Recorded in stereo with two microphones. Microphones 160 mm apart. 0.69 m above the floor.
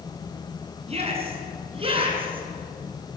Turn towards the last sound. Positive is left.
turn(degrees=-35)  # may be behind; listen again after turning